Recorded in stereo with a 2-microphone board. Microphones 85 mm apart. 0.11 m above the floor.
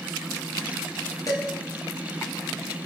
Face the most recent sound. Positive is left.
turn(degrees=45)  # may be behind; listen again after turning